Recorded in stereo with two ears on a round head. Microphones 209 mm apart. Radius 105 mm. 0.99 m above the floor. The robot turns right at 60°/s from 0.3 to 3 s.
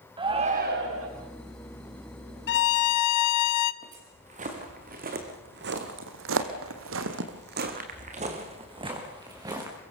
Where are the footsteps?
30° right (ahead or behind), 5 m; by 9.8 s 15° right (ahead or behind), 5 m.